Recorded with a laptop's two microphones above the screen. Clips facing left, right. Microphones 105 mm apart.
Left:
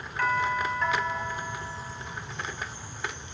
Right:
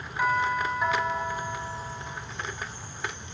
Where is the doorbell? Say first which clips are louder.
Right 1 dB; 10° right (ahead or behind), 3 m.